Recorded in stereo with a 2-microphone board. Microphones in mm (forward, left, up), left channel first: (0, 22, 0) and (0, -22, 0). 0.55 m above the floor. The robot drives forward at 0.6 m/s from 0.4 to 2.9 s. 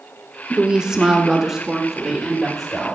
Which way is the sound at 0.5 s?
20° right (ahead or behind).